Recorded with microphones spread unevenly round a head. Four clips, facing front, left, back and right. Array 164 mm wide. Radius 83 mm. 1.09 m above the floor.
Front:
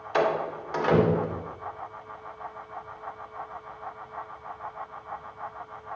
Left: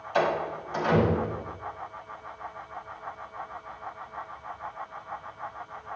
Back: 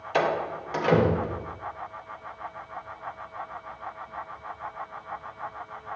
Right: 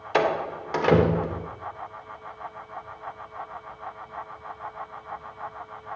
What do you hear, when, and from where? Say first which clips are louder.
0.1 s a door slam: right 2 dB, even; 105° right, 2.5 m